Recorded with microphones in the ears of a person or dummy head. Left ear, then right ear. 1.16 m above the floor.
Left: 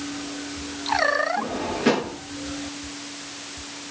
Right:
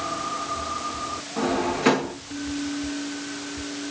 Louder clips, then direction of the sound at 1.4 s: Right 2 dB; 30° right (ahead or behind).